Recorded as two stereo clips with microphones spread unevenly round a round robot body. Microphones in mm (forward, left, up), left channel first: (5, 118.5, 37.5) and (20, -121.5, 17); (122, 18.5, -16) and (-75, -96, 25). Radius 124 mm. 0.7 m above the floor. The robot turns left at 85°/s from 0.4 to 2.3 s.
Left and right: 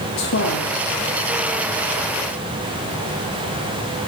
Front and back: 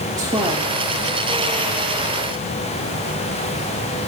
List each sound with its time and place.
0.2 s a woman speaking: 130° left, 1.5 m; by 0.8 s 100° left, 1.5 m